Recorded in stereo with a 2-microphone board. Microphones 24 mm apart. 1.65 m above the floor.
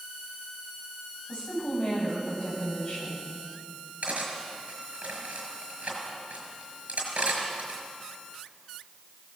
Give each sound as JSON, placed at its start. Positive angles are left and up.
{"t": 1.3, "sound": "a woman speaking", "side_deg": 40, "distance_m": 10.0}
{"t": 4.0, "sound": "cutlery clinking", "side_deg": -65, "distance_m": 5.5}